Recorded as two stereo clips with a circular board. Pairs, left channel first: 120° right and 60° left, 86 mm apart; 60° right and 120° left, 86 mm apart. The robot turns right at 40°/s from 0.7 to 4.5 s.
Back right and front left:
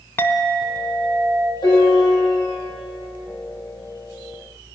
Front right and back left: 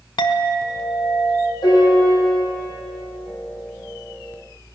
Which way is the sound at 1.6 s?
90° right.